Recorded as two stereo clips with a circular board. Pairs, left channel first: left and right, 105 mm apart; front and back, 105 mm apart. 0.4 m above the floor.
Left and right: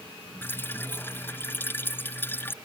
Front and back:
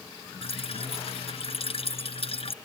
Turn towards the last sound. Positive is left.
turn(degrees=20)